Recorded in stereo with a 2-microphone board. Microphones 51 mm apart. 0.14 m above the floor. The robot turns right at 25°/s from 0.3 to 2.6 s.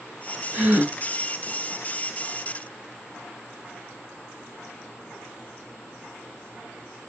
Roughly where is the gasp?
Right.